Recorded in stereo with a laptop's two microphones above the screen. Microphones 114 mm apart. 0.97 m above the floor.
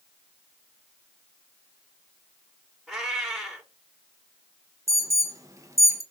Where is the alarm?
25° right (ahead or behind), 0.6 m.